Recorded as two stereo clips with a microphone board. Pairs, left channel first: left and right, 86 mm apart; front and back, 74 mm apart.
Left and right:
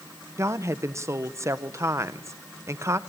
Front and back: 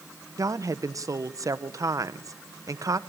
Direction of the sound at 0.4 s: 145° right.